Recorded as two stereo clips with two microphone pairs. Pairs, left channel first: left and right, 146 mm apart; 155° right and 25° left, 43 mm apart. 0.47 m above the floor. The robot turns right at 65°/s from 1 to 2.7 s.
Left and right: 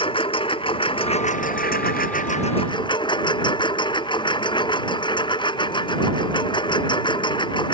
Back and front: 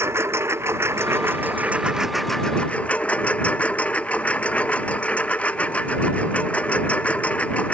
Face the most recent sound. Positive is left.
turn(degrees=145)